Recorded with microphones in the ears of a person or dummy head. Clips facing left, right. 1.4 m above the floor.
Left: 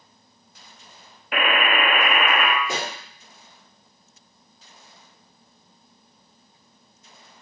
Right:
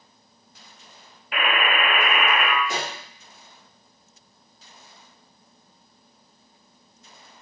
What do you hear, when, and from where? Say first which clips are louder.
1.3 s a buzzer: left 2 dB; 50° left (ahead or behind), 0.5 m
2.6 s a pop: even; 65° left (ahead or behind), 1.0 m